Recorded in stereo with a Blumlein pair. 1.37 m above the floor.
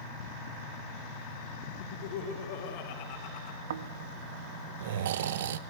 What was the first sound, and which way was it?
Laughter, 45° left.